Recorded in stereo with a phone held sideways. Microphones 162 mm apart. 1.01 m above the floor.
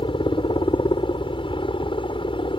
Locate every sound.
0.0 s a helicopter: 30° left (ahead or behind)